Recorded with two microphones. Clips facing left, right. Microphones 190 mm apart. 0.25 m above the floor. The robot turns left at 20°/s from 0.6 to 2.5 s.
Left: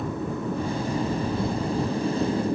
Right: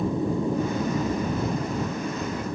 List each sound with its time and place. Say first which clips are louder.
0.0 s an aircraft: right 4 dB; 15° right (ahead or behind); by 2.6 s 30° left (ahead or behind)